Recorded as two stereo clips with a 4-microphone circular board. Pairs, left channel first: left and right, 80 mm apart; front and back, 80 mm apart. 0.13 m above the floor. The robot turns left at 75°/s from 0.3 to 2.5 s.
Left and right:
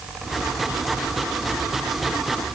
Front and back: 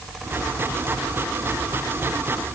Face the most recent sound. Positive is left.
No sound to turn to.